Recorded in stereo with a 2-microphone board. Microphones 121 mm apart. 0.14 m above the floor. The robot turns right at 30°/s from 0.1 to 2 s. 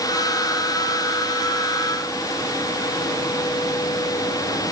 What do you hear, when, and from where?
Only background noise.